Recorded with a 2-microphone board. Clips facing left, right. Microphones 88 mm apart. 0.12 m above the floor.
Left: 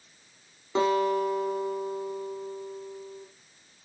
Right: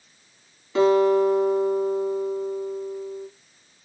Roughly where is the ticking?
No ticking in this recording.